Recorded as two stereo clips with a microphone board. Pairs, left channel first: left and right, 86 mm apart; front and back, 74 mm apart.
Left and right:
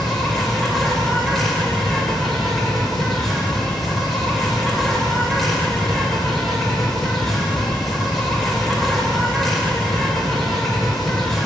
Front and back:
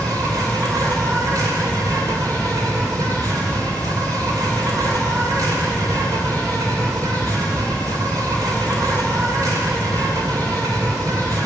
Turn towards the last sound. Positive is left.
turn(degrees=180)